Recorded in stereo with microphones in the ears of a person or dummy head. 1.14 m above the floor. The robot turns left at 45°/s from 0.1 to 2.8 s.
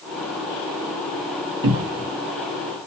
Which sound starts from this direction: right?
A cupboard door, at 1.6 s.